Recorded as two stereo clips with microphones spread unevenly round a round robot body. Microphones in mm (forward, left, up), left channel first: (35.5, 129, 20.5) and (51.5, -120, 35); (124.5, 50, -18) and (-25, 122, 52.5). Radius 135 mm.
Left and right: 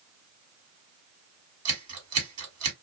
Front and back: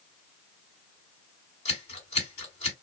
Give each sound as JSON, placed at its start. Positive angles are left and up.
{"t": 1.6, "sound": "scissors", "azimuth_deg": -70, "distance_m": 1.7}